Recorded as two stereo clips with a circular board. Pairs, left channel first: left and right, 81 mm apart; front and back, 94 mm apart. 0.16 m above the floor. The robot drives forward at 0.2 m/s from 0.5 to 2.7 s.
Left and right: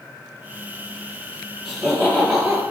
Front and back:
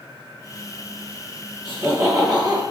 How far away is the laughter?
About 1.9 m.